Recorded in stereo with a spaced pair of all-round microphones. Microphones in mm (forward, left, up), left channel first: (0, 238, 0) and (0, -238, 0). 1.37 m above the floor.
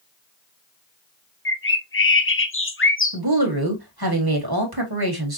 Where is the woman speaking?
50° right (ahead or behind), 1.6 m.